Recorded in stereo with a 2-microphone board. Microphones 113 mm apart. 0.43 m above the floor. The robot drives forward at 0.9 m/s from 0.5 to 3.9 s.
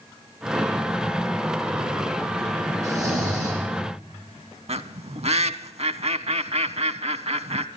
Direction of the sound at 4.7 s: 70° right (ahead or behind).